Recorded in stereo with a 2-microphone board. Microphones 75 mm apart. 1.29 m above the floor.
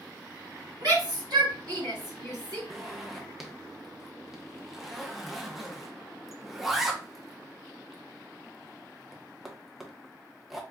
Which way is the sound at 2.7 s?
5° right (ahead or behind).